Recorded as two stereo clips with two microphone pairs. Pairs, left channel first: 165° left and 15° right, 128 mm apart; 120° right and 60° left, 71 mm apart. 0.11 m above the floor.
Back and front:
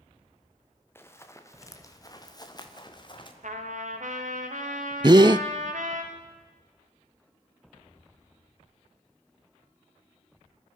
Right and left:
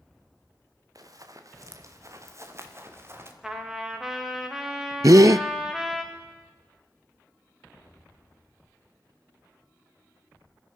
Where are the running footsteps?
95° left, 3 m; by 3.3 s 115° left, 4 m.